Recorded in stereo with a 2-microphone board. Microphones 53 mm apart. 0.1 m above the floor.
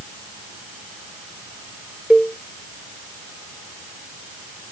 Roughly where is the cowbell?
Right.